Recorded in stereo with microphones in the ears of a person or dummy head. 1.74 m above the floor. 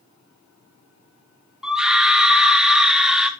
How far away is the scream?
About 0.9 m.